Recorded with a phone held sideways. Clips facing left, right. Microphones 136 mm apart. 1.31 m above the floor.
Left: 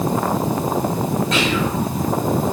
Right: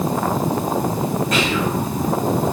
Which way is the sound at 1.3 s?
40° right (ahead or behind).